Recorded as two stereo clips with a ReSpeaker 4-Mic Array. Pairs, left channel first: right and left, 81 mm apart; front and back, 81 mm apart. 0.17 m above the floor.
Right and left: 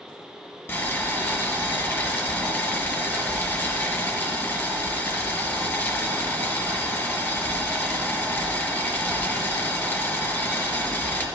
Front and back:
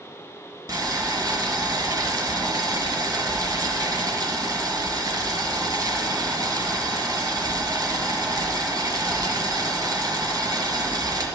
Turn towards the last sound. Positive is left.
turn(degrees=-145)